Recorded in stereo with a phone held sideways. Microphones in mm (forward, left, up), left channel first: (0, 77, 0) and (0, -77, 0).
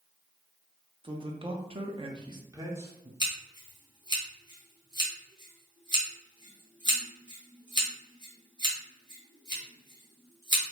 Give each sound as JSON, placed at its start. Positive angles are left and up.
{"t": 1.0, "sound": "a man speaking", "side_deg": -35, "distance_m": 0.7}
{"t": 3.2, "sound": "scissors", "side_deg": -30, "distance_m": 1.0}